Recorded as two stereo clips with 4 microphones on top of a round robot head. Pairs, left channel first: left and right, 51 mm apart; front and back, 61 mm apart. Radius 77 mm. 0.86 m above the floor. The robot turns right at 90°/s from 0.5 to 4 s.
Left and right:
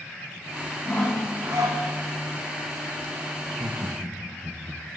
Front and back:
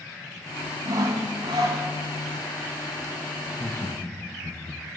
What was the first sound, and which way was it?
Sawing, 150° left.